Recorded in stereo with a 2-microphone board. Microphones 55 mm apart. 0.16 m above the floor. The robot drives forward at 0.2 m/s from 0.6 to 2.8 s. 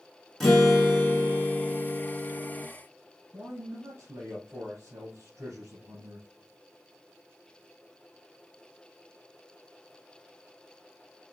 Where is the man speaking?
50° right (ahead or behind), 2.5 m.